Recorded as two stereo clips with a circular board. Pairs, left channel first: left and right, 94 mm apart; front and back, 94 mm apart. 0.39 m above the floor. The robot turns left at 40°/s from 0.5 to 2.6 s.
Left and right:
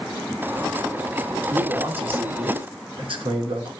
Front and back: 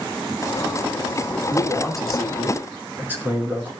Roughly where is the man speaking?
Ahead right.